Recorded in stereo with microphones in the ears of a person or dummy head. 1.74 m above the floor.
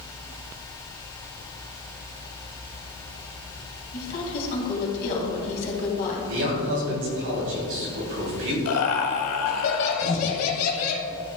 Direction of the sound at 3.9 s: 45° left (ahead or behind).